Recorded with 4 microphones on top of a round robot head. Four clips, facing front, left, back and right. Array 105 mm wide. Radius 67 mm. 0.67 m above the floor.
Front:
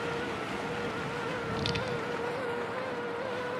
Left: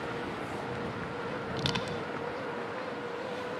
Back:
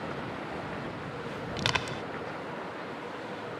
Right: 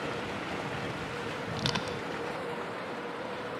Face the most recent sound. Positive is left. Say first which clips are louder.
# even, even
turn(degrees=-175)